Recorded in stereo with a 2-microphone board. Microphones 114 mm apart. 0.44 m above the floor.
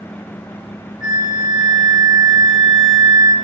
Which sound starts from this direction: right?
A flute, at 1.0 s.